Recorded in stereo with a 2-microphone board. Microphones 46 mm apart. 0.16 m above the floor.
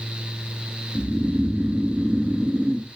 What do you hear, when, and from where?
0.9 s snoring: 25° right (ahead or behind), 0.9 m